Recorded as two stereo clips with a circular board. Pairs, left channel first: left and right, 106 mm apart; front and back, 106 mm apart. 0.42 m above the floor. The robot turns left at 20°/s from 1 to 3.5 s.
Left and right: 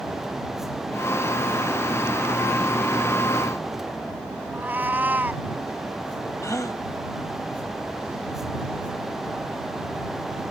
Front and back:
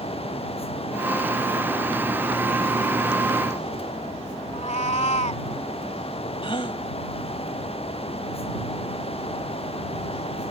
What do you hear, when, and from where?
4.5 s a cat meowing: 15° right
6.4 s a gasp: 30° left